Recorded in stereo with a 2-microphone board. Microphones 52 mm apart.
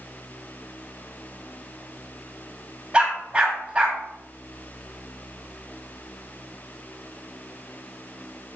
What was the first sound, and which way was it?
A dog barking, 15° right (ahead or behind).